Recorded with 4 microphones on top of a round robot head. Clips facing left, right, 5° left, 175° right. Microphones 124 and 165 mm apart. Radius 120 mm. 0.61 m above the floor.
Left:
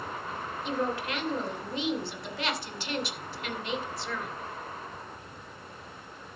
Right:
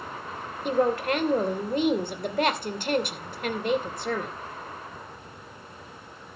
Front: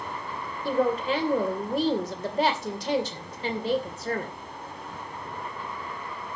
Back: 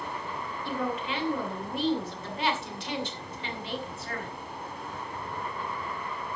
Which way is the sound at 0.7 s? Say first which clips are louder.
Right 8 dB, front 8 dB; 50° right.